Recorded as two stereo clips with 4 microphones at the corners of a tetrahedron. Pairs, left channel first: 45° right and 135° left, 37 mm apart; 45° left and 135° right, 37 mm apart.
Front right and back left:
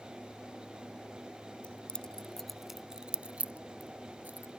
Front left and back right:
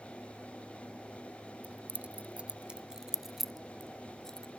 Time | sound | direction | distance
1.6 | keys jangling | 95° right | ?